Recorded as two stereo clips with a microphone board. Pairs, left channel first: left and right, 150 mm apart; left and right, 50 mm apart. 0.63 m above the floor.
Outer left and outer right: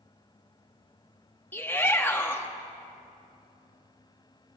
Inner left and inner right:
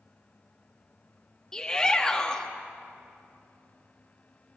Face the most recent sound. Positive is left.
turn(degrees=15)  # may be behind; listen again after turning